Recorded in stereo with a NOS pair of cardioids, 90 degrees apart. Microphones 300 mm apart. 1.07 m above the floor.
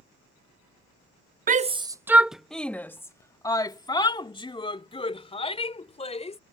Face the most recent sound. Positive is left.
turn(degrees=20)